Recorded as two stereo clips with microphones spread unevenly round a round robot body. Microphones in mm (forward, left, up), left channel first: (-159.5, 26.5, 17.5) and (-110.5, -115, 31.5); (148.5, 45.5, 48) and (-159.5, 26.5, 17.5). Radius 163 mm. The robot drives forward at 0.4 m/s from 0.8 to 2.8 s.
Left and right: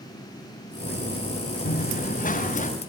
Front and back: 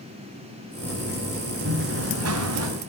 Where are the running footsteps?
130° left, 2 m; by 2.7 s 145° left, 3 m.